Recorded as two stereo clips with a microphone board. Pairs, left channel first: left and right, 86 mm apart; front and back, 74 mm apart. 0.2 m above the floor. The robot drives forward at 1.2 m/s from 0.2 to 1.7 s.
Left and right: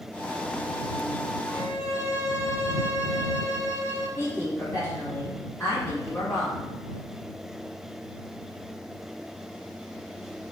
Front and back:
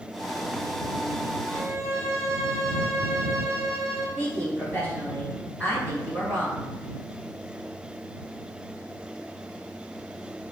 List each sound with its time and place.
1.5 s a violin: 165° right, 1.4 m
4.2 s a woman speaking: 145° left, 1.8 m